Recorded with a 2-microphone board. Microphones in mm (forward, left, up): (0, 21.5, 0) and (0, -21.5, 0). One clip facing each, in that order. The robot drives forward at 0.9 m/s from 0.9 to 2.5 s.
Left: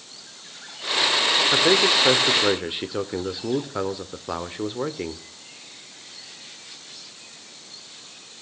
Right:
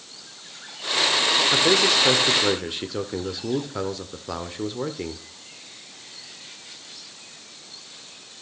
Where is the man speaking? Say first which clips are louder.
Left 2 dB; 15° left (ahead or behind), 1.3 m.